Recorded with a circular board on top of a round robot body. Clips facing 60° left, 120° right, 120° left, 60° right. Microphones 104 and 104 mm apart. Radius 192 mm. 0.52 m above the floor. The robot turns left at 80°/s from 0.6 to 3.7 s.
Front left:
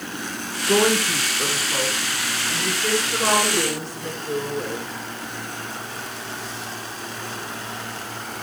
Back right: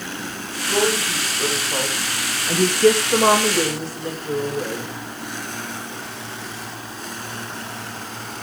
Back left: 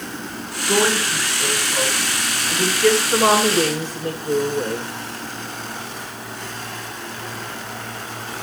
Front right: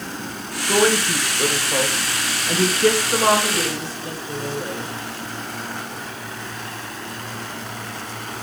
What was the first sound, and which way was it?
A woman speaking, 35° left.